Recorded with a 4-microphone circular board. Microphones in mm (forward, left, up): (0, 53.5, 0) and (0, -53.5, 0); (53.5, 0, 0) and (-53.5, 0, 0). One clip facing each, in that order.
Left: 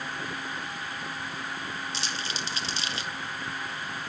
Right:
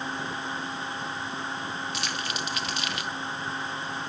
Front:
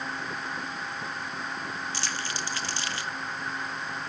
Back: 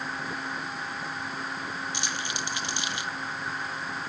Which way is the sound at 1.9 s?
120° left.